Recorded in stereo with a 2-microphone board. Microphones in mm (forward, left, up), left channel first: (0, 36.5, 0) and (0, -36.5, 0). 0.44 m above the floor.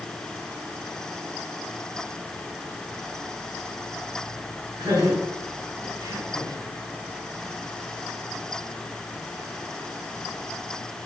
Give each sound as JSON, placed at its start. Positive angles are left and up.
{"t": 4.8, "sound": "laughter", "side_deg": -70, "distance_m": 3.5}